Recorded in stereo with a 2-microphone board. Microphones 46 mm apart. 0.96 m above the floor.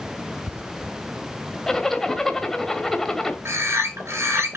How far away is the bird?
About 3 m.